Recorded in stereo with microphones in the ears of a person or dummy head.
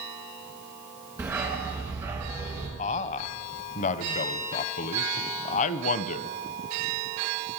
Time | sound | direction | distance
1.2 | a dog barking | 10° right (ahead or behind) | 4 m
2.8 | a man speaking | 40° left (ahead or behind) | 0.8 m